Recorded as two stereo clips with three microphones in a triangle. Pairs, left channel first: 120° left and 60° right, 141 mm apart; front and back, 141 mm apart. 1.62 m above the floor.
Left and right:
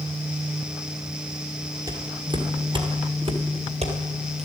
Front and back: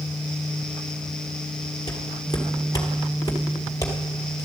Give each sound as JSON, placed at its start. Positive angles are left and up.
{"t": 1.9, "sound": "footsteps", "azimuth_deg": -20, "distance_m": 1.8}